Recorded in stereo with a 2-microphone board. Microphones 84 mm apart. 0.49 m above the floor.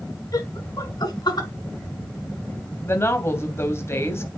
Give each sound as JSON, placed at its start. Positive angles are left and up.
{"t": 0.3, "sound": "laughter", "side_deg": 45, "distance_m": 5.0}
{"t": 2.8, "sound": "a woman speaking", "side_deg": 30, "distance_m": 3.0}